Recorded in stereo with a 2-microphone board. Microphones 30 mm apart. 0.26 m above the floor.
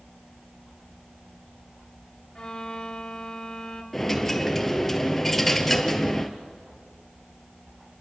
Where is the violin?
20° left (ahead or behind), 1.6 m.